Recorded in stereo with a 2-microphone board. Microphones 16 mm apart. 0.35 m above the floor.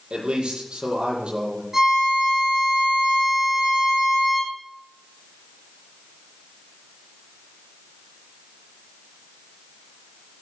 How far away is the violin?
About 5.5 m.